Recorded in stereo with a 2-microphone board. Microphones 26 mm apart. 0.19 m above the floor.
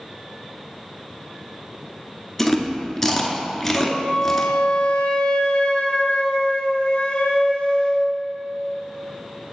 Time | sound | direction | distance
2.4 | chewing | 15° left (ahead or behind) | 0.8 m
3.8 | a flute | 45° left (ahead or behind) | 0.7 m